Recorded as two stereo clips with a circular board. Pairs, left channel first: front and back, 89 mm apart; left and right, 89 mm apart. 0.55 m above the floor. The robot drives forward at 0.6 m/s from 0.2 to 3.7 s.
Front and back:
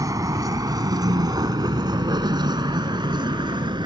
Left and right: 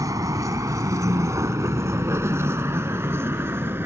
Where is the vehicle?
135° right; by 3.9 s 155° right.